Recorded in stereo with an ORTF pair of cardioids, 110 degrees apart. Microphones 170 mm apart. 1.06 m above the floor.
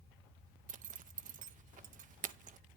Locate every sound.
0.7 s a zipper: 45° right, 0.6 m